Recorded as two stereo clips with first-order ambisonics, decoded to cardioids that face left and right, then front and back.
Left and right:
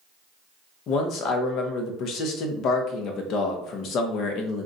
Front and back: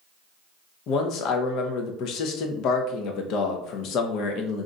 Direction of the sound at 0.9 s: 40° left.